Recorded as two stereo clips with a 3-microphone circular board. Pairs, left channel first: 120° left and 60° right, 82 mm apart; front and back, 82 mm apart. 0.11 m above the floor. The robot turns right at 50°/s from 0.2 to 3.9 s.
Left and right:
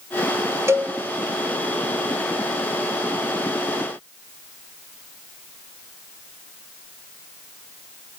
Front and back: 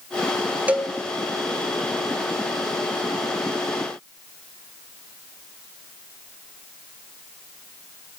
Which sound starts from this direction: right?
A cowbell, at 0.7 s.